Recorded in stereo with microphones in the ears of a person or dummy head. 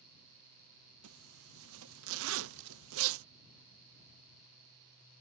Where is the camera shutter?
60° right (ahead or behind).